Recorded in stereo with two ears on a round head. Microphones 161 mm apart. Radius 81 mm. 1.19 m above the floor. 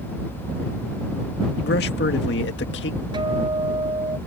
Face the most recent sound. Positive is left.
turn(degrees=-25)  # may be behind; listen again after turning